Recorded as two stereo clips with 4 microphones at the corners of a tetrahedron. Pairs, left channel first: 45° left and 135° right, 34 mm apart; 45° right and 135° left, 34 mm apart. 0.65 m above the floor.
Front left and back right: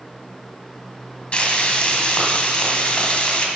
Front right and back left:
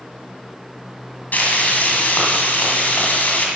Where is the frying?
15° right, 2 m.